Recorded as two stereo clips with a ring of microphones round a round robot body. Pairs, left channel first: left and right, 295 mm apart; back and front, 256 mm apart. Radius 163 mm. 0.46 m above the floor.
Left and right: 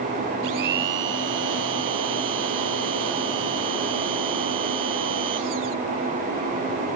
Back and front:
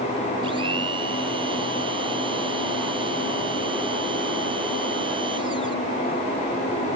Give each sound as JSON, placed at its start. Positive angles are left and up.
{"t": 0.4, "sound": "a blender", "azimuth_deg": -75}